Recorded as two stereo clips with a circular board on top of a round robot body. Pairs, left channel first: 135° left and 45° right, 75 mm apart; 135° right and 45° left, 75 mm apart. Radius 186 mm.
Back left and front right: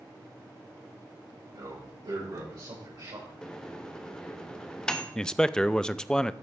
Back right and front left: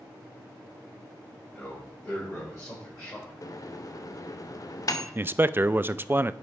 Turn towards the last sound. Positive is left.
turn(degrees=65)